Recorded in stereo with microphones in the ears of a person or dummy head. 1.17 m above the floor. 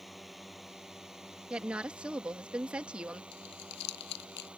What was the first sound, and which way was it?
A drone, 10° left (ahead or behind).